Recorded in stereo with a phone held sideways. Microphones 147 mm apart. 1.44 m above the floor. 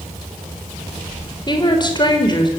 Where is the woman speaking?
30° left (ahead or behind), 4.5 m.